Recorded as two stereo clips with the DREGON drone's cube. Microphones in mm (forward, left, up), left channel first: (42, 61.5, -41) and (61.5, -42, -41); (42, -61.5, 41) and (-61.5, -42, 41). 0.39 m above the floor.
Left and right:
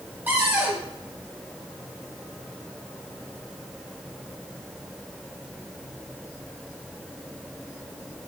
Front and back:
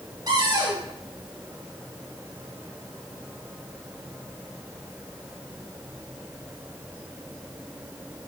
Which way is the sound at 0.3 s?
150° right.